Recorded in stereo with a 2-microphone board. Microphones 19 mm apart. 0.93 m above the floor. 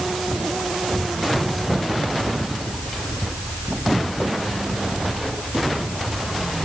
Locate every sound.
Only background noise.